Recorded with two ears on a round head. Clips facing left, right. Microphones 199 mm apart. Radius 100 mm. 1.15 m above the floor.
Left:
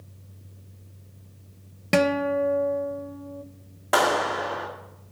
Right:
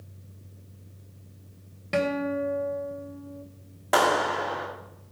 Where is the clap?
Centre (ahead or behind), 2 m.